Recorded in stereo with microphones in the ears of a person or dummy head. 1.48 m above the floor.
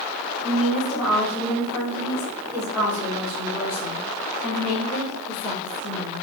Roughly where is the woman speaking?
Centre.